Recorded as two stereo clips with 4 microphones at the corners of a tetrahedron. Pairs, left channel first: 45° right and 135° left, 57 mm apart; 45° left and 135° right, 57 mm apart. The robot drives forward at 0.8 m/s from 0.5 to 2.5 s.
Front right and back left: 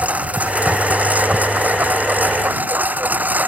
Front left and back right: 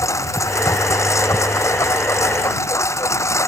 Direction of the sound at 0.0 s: 70° left.